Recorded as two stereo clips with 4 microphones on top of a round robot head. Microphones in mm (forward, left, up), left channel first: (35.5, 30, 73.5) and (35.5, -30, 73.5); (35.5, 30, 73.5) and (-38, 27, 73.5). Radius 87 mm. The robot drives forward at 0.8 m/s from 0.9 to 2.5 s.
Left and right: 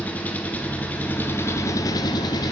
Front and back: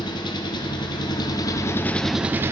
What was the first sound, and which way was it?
An engine running, 25° left.